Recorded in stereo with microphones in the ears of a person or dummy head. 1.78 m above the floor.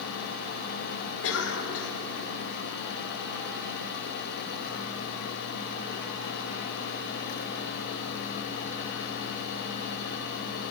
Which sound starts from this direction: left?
A cough, at 1.2 s.